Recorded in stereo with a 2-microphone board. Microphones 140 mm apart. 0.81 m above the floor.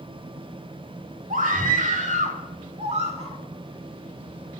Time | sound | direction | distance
1.3 | a scream | 75° right (ahead or behind) | 2.0 m